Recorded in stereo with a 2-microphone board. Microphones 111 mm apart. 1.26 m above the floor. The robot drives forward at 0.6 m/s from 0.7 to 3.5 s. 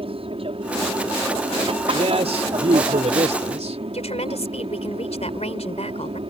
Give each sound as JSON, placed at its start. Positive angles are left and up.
{"t": 0.0, "sound": "an aircraft", "side_deg": -55}
{"t": 1.9, "sound": "a man speaking", "side_deg": -65}
{"t": 3.9, "sound": "a woman speaking", "side_deg": 75}